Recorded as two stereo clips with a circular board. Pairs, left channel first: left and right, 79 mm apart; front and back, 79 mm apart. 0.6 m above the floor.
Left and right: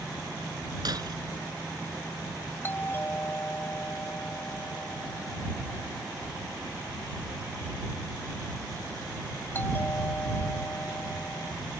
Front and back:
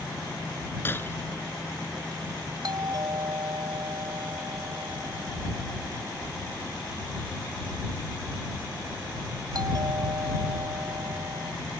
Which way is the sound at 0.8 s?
60° right.